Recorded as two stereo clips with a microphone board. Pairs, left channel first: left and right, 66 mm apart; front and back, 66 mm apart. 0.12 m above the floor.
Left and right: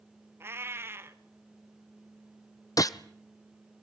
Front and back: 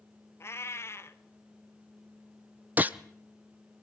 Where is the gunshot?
115° left, 1.1 m.